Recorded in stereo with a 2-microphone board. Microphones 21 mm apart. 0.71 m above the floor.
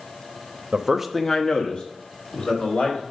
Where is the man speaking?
35° right (ahead or behind), 0.8 m; by 3.0 s 65° left (ahead or behind), 2.5 m.